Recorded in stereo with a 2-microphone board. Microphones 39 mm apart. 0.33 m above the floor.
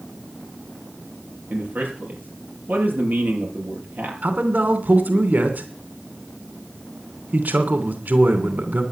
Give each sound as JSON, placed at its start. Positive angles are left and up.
{"t": 1.5, "sound": "a man speaking", "side_deg": -55, "distance_m": 6.0}
{"t": 4.2, "sound": "a man speaking", "side_deg": -55, "distance_m": 3.0}